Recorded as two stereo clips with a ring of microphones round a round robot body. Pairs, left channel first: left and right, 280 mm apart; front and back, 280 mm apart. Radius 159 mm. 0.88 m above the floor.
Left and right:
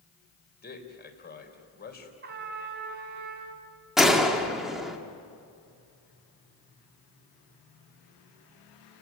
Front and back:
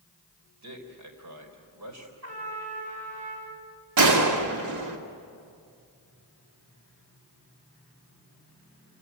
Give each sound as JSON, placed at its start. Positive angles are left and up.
{"t": 0.6, "sound": "a man speaking", "azimuth_deg": 145, "distance_m": 4.0}
{"t": 2.2, "sound": "a trumpet", "azimuth_deg": -145, "distance_m": 4.5}
{"t": 4.0, "sound": "a gunshot", "azimuth_deg": 180, "distance_m": 2.5}